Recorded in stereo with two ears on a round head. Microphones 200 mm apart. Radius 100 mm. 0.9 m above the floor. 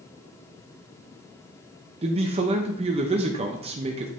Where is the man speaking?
30° right (ahead or behind), 0.6 m.